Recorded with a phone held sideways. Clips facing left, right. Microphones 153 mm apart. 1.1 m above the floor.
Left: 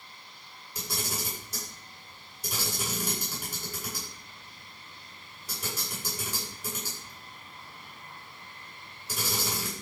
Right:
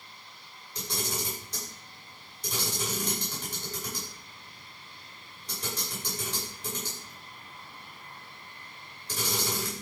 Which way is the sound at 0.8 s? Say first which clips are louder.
Right 2 dB; 10° left (ahead or behind).